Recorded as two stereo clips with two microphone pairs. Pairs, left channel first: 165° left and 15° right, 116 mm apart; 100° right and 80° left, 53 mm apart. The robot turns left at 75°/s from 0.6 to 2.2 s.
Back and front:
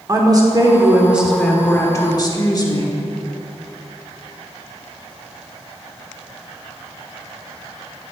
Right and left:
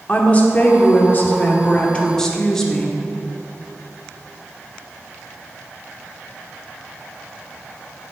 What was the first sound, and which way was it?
A woman speaking, 55° right.